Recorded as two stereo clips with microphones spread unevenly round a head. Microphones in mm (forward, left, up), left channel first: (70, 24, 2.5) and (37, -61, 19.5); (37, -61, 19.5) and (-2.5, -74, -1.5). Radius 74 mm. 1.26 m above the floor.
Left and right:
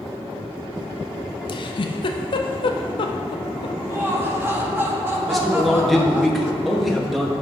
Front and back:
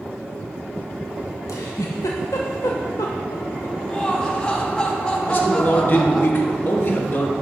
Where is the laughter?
50° right, 1.9 m.